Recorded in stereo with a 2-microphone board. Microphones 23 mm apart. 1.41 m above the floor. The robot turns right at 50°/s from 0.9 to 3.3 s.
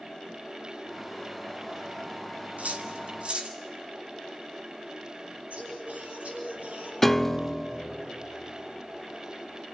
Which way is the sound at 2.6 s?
65° right (ahead or behind).